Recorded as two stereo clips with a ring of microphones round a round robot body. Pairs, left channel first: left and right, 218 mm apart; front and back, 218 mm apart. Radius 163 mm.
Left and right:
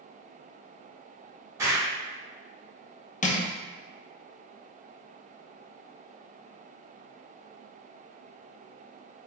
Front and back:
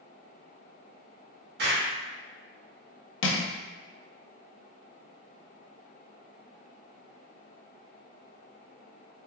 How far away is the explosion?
About 1.1 m.